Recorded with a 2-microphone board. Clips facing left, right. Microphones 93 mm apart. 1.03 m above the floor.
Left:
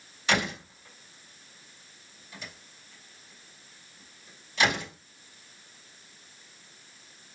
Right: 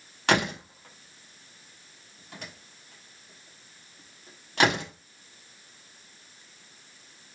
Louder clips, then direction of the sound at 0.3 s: Right 3 dB; 60° right (ahead or behind).